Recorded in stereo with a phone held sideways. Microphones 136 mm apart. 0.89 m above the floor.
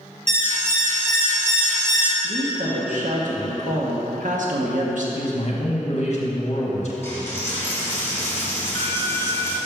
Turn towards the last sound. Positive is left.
turn(degrees=15)  # may be behind; listen again after turning